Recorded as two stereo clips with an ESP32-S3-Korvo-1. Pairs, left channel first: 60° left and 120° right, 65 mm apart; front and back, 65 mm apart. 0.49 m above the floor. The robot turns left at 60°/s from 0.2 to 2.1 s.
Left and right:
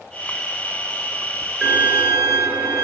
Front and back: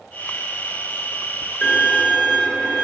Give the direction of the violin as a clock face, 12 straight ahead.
1 o'clock.